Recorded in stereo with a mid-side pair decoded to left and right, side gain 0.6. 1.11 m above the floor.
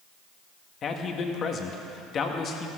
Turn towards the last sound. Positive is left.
turn(degrees=45)